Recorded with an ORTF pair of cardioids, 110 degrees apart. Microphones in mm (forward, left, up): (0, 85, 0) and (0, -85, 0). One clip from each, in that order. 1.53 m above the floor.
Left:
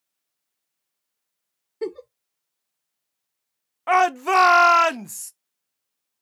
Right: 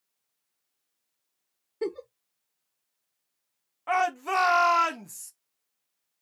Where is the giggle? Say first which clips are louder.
Left 2 dB; 5° left, 0.6 m.